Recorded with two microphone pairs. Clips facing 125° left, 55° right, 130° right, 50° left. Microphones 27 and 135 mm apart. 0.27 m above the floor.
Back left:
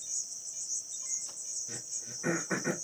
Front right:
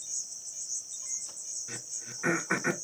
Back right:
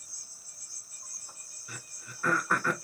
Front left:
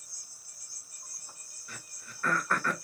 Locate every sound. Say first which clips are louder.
0.0 s an insect: even, back right 1 dB; 155° right, 2 m
1.7 s throat clearing: front right 1 dB, back right 1 dB; 50° right, 0.7 m